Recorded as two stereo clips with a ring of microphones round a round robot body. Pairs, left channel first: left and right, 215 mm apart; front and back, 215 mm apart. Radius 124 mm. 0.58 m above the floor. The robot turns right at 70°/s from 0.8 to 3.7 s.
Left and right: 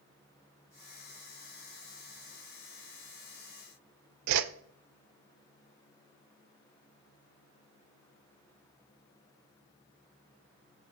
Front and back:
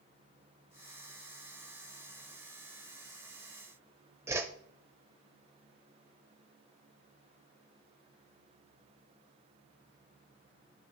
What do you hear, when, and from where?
4.3 s a whoosh: 100° right, 0.5 m